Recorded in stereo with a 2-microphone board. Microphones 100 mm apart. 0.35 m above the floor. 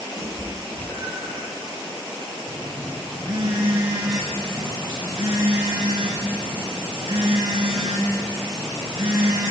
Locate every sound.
0.2 s a cat meowing: 30° left (ahead or behind), 5.5 m
2.5 s a phone buzzing: 50° right (ahead or behind), 5 m